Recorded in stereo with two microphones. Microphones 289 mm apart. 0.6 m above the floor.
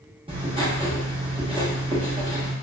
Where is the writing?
20° right (ahead or behind), 0.9 m.